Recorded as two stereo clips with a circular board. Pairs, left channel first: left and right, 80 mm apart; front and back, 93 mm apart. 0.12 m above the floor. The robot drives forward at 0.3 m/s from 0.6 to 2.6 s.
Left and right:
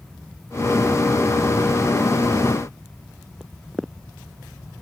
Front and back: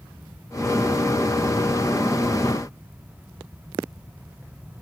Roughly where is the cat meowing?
No cat meowing in this recording.